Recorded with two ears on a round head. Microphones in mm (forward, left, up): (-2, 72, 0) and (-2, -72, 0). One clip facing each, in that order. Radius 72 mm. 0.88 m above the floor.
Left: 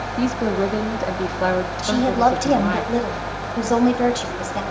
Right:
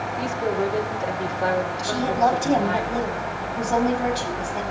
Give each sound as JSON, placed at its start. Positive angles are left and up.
{"t": 0.2, "sound": "a woman speaking", "side_deg": 60, "distance_m": 1.8}
{"t": 1.8, "sound": "a woman speaking", "side_deg": 85, "distance_m": 4.0}